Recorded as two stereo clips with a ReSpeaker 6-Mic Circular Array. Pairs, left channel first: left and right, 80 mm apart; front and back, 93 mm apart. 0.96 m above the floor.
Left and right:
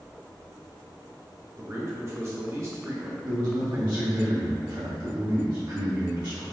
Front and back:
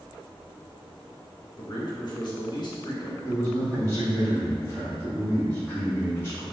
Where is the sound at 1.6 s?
35° right, 1.1 m.